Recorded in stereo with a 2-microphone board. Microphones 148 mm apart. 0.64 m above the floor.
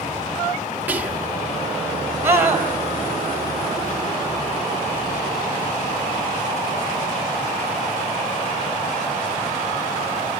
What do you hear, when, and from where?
0.9 s whispering: 10° right (ahead or behind), 1.4 m
2.2 s a scream: 15° right (ahead or behind), 4 m